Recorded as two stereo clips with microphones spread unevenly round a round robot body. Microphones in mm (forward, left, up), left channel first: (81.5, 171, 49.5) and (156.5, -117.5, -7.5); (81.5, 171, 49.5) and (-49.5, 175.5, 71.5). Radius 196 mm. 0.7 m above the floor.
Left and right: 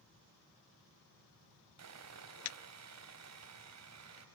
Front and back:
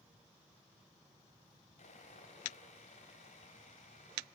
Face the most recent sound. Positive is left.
turn(degrees=-50)